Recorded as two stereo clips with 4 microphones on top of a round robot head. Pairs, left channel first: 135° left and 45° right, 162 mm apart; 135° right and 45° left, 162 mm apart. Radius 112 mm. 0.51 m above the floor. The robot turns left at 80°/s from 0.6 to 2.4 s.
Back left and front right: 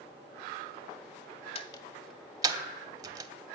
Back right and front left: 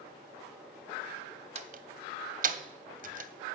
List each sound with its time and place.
1.6 s a door slam: 90° left, 1.0 m; by 3.3 s 20° left, 1.0 m